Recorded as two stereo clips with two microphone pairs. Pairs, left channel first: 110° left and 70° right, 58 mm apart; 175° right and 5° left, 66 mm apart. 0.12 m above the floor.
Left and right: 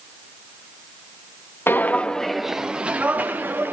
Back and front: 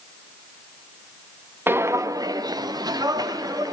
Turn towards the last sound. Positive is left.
turn(degrees=-15)